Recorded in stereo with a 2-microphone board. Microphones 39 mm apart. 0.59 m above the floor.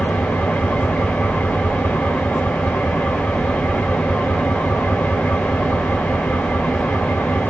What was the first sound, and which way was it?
An engine running, 40° left (ahead or behind).